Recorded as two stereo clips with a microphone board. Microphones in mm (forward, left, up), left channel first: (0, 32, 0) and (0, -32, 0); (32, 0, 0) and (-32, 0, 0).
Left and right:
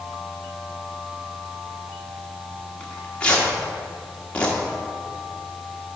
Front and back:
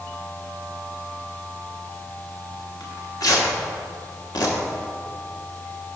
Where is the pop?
I don't hear a pop.